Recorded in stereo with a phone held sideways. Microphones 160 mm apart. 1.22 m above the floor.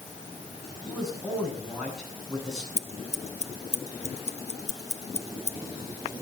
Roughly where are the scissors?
Left.